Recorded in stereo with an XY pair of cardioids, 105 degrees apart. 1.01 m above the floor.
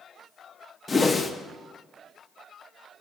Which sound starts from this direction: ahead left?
A whoosh, at 0.9 s.